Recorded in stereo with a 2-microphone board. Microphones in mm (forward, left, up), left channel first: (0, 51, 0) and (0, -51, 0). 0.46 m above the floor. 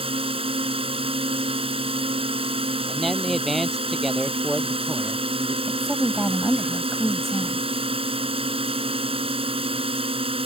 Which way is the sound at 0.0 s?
65° right (ahead or behind).